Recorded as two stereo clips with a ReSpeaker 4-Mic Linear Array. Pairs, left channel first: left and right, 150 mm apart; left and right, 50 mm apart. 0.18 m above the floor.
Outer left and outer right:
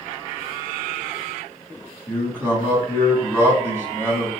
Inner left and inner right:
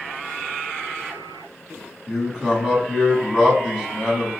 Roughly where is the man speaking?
Centre.